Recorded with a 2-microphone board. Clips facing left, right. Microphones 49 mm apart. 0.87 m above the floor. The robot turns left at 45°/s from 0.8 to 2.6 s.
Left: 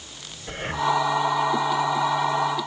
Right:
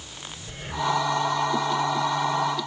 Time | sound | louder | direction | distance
0.5 | breathing | left 3 dB | 50° left (ahead or behind) | 1.1 m